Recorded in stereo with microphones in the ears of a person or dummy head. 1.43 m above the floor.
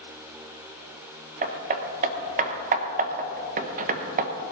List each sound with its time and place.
1.4 s hammering: 35° right (ahead or behind), 1.1 m